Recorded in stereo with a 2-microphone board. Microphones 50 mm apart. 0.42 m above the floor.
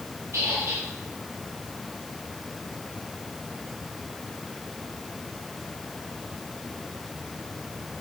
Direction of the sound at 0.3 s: 60° right (ahead or behind).